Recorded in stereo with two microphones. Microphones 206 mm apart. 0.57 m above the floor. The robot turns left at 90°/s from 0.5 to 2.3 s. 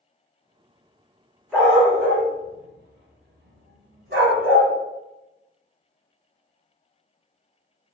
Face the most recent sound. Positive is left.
turn(degrees=-70)  # may be behind; listen again after turning